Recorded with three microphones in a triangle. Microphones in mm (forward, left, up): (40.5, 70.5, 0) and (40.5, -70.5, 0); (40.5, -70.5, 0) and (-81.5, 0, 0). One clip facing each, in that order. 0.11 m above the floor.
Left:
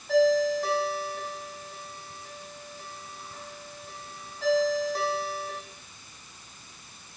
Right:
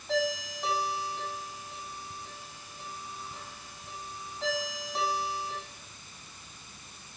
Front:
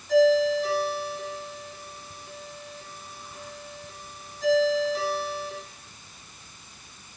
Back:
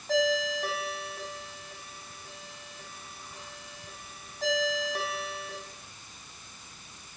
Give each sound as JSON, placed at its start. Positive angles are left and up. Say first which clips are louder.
{"t": 0.1, "sound": "a ringtone", "louder": "left 10 dB, front 8 dB", "azimuth_deg": 180, "distance_m": 3.0}